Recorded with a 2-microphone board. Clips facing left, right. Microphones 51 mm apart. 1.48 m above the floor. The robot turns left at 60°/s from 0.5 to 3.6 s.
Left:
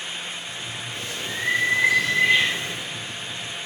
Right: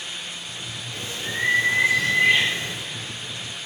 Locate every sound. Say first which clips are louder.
0.9 s a bird: right 3 dB; 30° right, 1.7 m; by 2.9 s 145° right, 1.7 m